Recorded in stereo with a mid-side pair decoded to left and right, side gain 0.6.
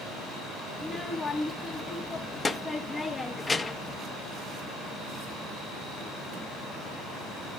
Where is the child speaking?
25° left, 0.8 m.